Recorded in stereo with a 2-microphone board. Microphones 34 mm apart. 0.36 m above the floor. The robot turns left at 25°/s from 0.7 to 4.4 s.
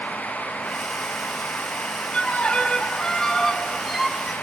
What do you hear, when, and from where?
2.1 s a violin: 50° left, 1.6 m; by 4.3 s 5° right, 1.6 m